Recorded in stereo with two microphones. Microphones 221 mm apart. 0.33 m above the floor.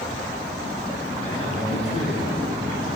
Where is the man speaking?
30° left (ahead or behind), 5 m.